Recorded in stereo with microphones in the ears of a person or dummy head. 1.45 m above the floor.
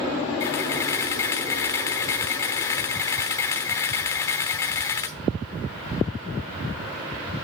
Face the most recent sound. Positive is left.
turn(degrees=20)  # may be behind; listen again after turning